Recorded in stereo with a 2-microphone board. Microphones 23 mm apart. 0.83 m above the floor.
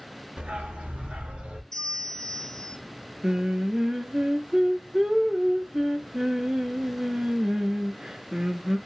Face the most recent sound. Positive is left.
turn(degrees=-30)  # may be behind; listen again after turning